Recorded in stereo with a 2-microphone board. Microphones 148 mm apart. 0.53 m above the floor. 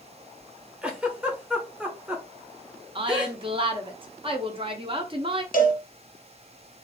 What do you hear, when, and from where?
0.8 s a giggle: 10° right (ahead or behind), 0.8 m
3.0 s a woman speaking: 35° right (ahead or behind), 0.7 m
5.5 s a cowbell: 55° left (ahead or behind), 1.0 m